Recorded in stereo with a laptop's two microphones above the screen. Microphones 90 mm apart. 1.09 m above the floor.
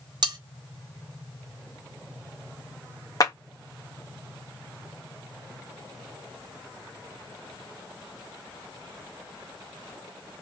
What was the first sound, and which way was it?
Cutlery clinking, 50° right (ahead or behind).